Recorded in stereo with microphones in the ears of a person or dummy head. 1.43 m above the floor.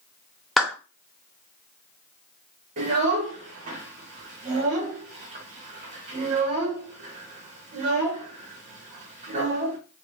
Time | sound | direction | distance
0.6 | a clap | centre (ahead or behind) | 0.6 m
2.8 | a child speaking | 40° right (ahead or behind) | 1.0 m